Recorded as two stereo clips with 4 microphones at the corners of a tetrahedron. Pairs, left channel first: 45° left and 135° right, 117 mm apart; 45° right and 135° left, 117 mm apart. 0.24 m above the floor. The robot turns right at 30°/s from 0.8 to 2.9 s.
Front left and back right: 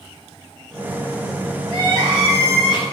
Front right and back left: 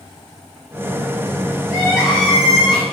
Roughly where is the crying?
Right.